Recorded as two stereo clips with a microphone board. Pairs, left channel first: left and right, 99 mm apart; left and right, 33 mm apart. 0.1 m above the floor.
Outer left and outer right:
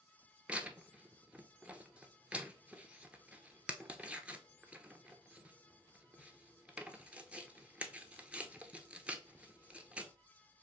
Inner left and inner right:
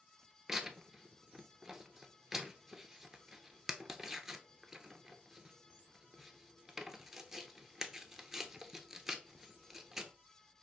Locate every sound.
0.5 s tearing paper: 10° right (ahead or behind), 0.6 m